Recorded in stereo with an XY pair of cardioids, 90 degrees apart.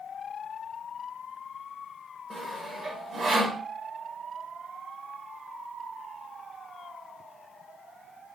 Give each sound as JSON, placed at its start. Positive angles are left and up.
{"t": 2.3, "sound": "sawing", "azimuth_deg": -55, "distance_m": 1.2}